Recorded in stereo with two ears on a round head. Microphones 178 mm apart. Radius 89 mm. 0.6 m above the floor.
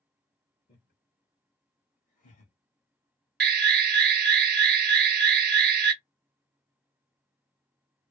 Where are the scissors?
I don't hear scissors.